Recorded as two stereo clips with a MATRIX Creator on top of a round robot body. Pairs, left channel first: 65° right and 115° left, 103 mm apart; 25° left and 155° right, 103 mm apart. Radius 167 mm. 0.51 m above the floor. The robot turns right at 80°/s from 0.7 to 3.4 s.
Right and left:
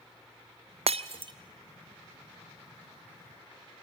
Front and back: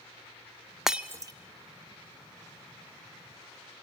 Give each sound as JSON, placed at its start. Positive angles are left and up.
{"t": 0.9, "sound": "breaking glass", "azimuth_deg": 115, "distance_m": 1.0}